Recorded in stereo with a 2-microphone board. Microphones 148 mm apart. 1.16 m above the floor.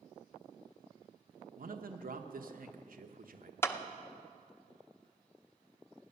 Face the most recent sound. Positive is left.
turn(degrees=15)  # may be behind; listen again after turning